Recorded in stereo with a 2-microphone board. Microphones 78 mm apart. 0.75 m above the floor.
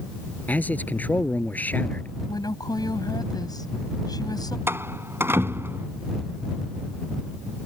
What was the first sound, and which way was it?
A man speaking, 20° left (ahead or behind).